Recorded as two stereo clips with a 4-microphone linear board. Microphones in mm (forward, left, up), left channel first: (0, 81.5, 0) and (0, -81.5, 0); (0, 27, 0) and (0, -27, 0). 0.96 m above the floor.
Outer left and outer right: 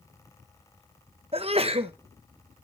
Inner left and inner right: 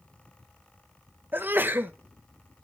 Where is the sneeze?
35° right (ahead or behind), 0.9 m.